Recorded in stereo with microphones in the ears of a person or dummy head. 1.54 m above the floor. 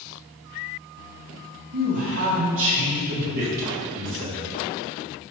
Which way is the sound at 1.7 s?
80° right.